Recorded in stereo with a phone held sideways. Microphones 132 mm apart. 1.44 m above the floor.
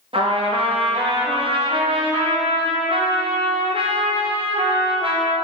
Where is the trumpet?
45° right (ahead or behind), 0.9 m.